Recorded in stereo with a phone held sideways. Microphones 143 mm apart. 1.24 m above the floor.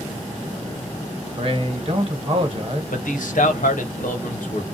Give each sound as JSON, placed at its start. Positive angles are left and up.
{"t": 1.4, "sound": "a man speaking", "side_deg": -45, "distance_m": 1.0}
{"t": 2.9, "sound": "a man speaking", "side_deg": 75, "distance_m": 1.0}